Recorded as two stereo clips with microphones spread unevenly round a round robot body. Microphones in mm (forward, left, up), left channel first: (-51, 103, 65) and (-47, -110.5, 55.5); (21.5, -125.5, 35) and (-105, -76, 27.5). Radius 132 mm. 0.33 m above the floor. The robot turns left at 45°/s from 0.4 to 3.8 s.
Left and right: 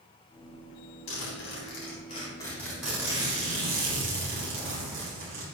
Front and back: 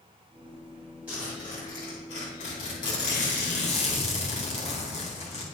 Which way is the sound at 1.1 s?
75° left.